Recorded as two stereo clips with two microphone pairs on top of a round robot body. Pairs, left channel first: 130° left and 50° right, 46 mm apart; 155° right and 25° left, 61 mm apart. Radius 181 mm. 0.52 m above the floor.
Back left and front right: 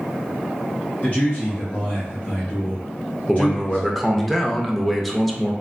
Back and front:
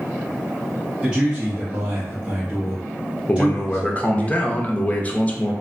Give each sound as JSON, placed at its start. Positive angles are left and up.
{"t": 1.0, "sound": "a man speaking", "azimuth_deg": 75, "distance_m": 1.3}
{"t": 3.3, "sound": "a man speaking", "azimuth_deg": -120, "distance_m": 0.7}